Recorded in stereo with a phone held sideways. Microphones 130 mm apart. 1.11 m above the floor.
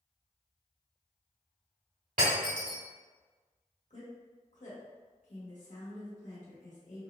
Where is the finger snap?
No finger snap in this recording.